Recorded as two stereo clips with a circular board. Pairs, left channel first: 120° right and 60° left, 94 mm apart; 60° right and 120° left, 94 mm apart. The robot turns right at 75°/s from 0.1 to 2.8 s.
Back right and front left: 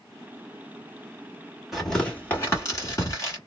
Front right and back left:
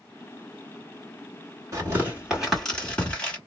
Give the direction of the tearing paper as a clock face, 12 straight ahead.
7 o'clock.